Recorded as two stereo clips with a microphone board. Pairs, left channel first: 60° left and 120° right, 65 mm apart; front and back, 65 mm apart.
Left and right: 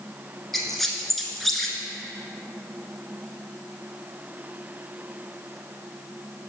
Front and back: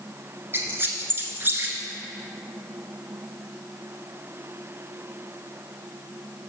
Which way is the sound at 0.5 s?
145° left.